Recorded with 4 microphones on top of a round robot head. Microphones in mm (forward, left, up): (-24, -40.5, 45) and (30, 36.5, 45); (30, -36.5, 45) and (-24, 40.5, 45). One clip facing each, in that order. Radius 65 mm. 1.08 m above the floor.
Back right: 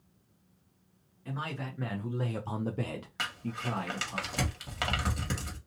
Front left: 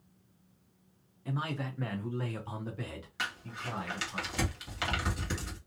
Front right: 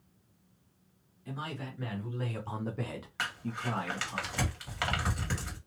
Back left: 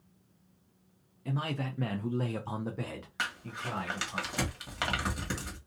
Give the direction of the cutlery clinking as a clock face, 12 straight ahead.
No cutlery clinking in this recording.